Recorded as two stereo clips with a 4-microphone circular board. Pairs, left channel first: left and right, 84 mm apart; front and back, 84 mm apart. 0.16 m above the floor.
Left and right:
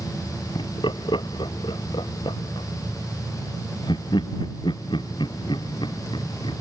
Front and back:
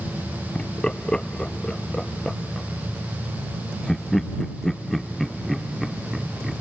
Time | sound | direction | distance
0.6 | laughter | 80° left | ?